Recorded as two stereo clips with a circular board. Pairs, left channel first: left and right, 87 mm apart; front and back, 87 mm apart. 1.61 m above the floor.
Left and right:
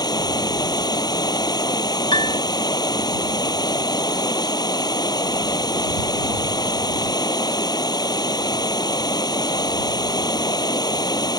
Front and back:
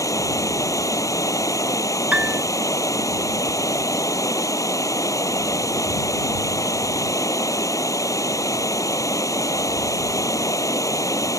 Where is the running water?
50° left.